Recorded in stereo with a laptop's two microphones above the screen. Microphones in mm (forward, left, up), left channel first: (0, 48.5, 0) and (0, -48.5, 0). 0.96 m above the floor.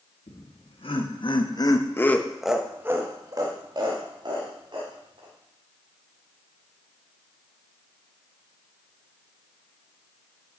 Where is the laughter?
75° left (ahead or behind), 2 m; by 5.3 s 60° right (ahead or behind), 3 m.